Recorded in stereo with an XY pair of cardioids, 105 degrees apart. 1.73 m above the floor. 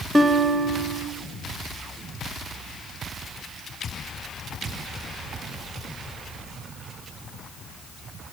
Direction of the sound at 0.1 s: 15° right.